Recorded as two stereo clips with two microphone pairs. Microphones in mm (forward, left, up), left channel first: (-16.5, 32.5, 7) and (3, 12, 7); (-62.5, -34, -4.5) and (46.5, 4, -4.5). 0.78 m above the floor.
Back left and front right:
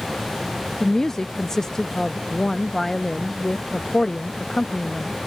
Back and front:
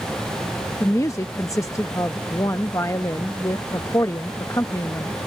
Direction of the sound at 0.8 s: 175° right.